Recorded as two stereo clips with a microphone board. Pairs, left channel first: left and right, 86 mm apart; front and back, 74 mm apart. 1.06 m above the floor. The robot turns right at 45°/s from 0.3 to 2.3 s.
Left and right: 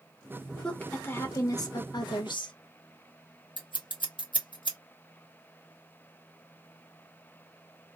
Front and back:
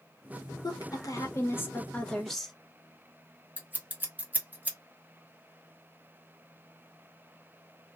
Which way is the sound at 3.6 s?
110° left.